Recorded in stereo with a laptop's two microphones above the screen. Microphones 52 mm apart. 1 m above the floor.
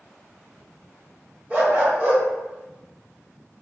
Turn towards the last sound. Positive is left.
turn(degrees=-30)  # may be behind; listen again after turning